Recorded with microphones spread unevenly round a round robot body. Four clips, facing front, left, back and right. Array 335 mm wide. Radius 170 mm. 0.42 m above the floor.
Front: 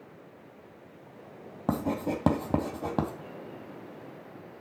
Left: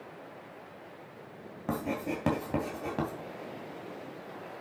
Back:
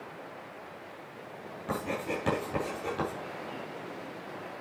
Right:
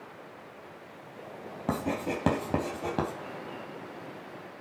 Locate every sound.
1.7 s writing: 20° right, 2.5 m